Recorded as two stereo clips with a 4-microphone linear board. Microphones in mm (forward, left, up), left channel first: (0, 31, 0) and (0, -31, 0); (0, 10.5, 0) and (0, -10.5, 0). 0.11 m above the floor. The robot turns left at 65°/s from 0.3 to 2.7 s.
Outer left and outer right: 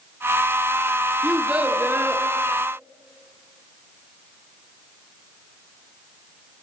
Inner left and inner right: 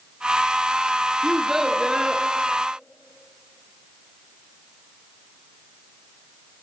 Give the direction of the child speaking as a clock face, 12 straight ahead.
12 o'clock.